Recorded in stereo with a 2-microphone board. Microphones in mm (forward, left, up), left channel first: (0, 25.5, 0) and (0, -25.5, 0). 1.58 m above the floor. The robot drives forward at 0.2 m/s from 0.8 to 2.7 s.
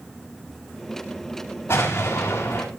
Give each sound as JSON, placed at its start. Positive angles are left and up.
{"t": 1.7, "sound": "an explosion", "side_deg": 50, "distance_m": 9.5}